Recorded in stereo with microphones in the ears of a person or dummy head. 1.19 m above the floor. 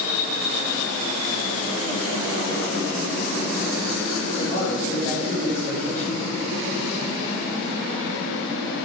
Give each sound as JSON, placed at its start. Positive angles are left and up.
{"t": 4.4, "sound": "a man speaking", "side_deg": 25, "distance_m": 4.5}